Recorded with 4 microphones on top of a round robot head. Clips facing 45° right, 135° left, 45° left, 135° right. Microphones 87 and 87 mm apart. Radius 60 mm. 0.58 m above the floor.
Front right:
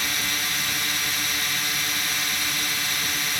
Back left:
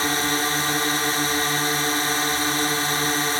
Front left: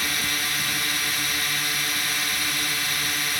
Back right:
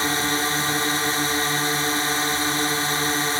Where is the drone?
175° left.